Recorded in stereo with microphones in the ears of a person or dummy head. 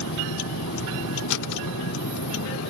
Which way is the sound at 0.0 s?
80° left.